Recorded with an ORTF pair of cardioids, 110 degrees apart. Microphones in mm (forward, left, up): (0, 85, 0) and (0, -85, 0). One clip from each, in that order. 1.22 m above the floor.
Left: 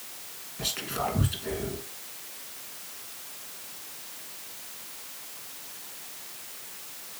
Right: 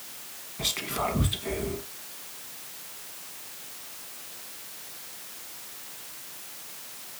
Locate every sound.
0.6 s whispering: 15° right, 1.4 m